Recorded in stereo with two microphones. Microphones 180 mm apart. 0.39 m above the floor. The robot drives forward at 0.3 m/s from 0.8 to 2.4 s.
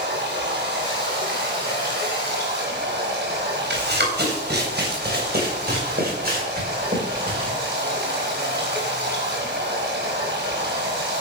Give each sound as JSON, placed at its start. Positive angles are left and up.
{"t": 0.0, "sound": "running water", "side_deg": -65, "distance_m": 5.0}
{"t": 3.7, "sound": "running footsteps", "side_deg": -65, "distance_m": 5.0}